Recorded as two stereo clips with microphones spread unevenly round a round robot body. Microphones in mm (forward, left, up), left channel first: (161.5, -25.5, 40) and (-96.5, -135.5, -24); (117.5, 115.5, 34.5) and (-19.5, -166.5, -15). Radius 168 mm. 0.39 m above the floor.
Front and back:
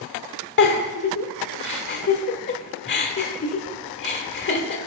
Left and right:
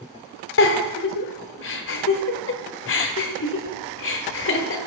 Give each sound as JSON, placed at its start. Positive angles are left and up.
{"t": 0.6, "sound": "a giggle", "azimuth_deg": 60, "distance_m": 1.1}